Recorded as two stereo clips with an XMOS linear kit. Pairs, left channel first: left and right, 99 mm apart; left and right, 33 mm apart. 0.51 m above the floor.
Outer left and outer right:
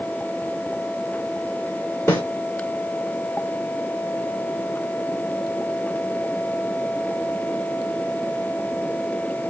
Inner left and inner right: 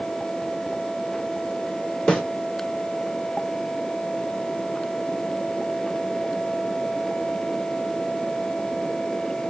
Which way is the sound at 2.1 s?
25° left (ahead or behind).